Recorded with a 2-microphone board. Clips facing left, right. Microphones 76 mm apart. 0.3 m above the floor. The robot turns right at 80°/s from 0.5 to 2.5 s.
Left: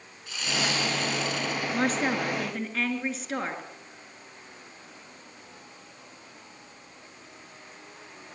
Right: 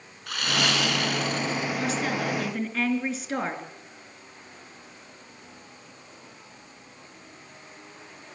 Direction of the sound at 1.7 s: 120° left.